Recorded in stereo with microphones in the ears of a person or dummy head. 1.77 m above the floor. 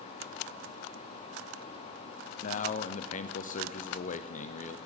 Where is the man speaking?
35° left (ahead or behind), 0.7 m.